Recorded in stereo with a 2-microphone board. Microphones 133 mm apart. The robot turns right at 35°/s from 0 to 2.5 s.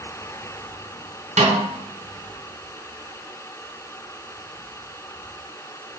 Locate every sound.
1.4 s a snare drum: 80° right, 1.4 m; by 1.6 s 85° right, 1.4 m